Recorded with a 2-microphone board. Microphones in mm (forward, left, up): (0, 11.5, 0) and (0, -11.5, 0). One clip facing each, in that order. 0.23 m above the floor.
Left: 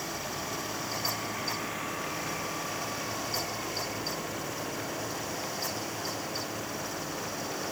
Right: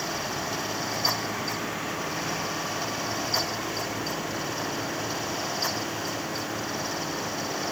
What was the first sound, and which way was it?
Only background noise.